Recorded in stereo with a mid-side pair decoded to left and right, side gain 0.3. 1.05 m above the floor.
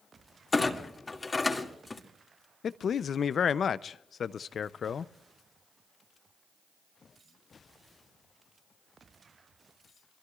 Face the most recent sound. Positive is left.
turn(degrees=70)